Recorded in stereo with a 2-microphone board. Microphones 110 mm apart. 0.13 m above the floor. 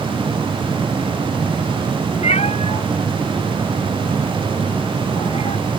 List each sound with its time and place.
2.2 s a cat meowing: 70° left (ahead or behind); by 5.6 s 65° left (ahead or behind)